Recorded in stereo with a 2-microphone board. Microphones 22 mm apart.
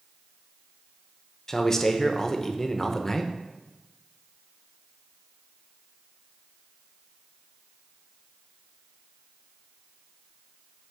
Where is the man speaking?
20° left (ahead or behind), 0.7 m.